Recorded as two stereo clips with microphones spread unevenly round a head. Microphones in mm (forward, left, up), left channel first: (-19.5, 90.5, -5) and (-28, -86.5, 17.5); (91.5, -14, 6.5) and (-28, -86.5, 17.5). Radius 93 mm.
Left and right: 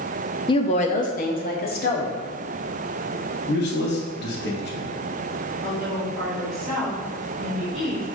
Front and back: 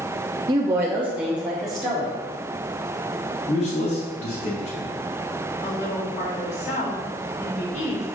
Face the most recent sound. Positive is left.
turn(degrees=-5)